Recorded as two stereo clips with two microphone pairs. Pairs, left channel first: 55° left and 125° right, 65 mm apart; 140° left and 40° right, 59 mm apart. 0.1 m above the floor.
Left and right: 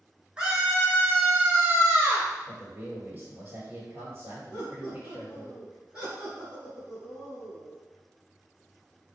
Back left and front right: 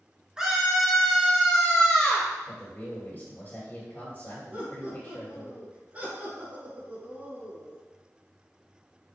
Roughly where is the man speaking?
Behind.